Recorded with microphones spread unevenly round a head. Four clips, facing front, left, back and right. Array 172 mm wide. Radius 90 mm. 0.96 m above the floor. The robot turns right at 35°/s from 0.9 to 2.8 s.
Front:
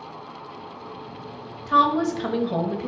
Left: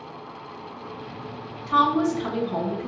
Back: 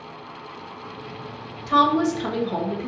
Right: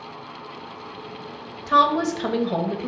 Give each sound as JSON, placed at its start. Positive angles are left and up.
{"t": 1.7, "sound": "a woman speaking", "azimuth_deg": -90, "distance_m": 1.1}